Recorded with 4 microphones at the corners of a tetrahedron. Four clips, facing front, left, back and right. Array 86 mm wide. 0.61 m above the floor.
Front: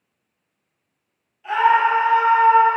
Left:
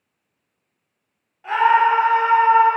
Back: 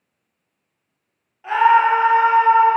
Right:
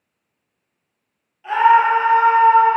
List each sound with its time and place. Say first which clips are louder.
1.4 s a scream: right 2 dB, back 2 dB; 150° left, 1.3 m; by 2.8 s 170° right, 1.0 m